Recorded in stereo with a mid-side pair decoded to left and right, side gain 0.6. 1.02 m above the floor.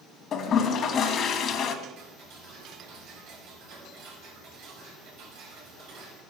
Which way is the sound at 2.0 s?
70° right.